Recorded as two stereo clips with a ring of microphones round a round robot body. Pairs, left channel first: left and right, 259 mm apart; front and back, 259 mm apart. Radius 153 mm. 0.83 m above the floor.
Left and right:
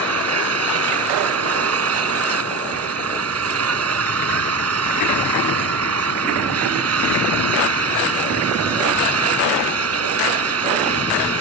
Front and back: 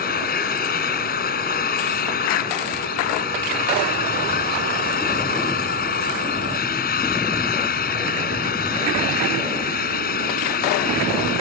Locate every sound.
0.0 s an engine running: 60° right